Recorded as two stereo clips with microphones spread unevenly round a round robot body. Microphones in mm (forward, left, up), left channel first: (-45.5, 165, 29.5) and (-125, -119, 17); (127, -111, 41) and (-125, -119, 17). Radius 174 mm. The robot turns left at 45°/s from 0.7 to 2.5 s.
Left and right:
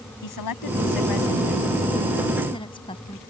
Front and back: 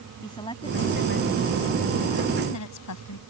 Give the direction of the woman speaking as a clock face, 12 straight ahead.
9 o'clock.